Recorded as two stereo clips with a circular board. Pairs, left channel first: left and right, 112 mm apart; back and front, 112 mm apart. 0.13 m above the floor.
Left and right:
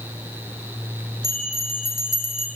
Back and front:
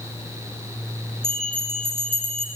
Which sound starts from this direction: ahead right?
A bell, at 1.2 s.